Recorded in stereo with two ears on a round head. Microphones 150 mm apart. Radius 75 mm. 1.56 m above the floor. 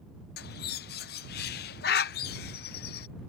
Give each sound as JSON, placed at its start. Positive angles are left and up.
{"t": 0.4, "sound": "a bird", "side_deg": 65}